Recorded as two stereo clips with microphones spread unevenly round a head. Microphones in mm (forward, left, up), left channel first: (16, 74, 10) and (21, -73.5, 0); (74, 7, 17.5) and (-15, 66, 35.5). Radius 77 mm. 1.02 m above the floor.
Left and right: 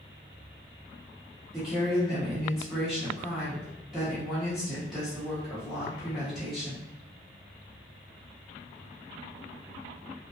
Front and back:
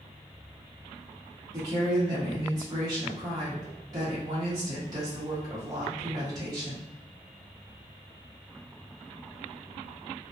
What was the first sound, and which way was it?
A woman speaking, 170° right.